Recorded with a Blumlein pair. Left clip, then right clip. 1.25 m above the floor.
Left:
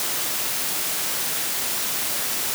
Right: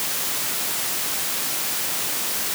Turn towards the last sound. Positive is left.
No sound to turn to.